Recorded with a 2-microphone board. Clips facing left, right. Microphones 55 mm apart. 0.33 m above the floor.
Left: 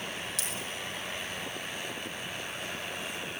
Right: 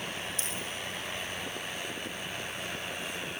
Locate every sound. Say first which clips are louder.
0.4 s a dropped coin: even; 70° left (ahead or behind), 5.5 m